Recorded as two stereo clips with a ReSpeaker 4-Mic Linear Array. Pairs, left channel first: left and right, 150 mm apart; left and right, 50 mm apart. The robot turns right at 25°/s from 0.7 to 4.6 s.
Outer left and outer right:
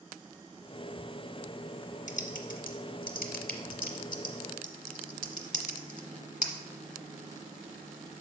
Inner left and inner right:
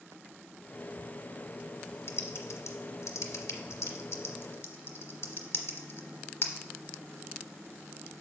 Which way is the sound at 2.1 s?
55° left (ahead or behind).